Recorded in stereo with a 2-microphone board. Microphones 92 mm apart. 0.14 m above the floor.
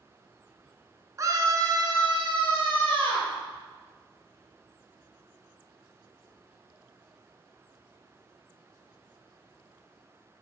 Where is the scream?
35° right (ahead or behind), 1.4 m; by 3.3 s 70° right (ahead or behind), 3 m.